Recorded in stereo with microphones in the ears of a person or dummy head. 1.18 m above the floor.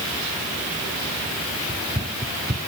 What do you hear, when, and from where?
1.7 s running footsteps: 20° right (ahead or behind)